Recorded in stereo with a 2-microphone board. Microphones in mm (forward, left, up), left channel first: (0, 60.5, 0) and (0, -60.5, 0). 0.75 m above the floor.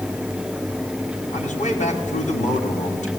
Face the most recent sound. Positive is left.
turn(degrees=75)  # may be behind; listen again after turning